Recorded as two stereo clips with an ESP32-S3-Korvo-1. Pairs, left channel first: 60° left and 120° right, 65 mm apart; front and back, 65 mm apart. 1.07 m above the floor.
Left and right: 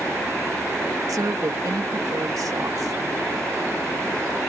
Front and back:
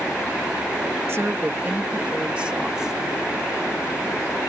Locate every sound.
1.1 s a woman speaking: 135° right; by 3.0 s 100° right